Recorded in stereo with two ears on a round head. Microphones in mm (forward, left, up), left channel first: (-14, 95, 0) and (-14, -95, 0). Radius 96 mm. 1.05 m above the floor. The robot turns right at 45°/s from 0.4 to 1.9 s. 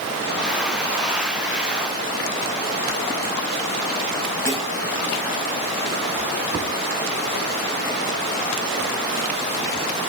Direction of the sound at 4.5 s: 10° left (ahead or behind).